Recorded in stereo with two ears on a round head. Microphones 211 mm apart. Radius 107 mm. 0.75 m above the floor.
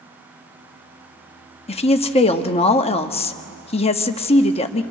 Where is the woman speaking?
25° left (ahead or behind), 0.9 m.